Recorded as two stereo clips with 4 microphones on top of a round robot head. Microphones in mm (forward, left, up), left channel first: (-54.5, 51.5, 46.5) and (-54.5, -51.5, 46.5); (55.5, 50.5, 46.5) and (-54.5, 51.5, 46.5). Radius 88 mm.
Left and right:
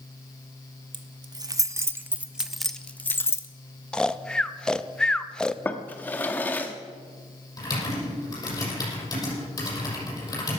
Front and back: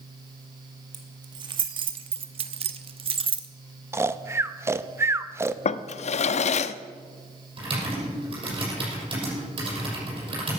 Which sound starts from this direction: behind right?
Keys jangling, at 0.9 s.